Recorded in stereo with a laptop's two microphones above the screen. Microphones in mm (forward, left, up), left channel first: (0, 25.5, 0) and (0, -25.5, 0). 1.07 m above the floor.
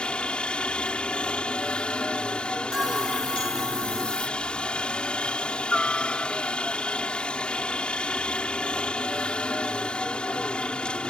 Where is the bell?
10° right (ahead or behind).